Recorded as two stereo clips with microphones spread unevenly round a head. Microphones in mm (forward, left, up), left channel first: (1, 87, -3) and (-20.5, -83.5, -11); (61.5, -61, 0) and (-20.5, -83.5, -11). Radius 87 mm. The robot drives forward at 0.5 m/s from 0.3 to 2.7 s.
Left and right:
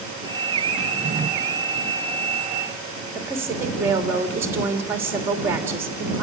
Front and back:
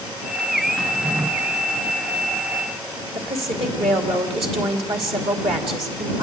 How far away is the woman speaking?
About 2.5 m.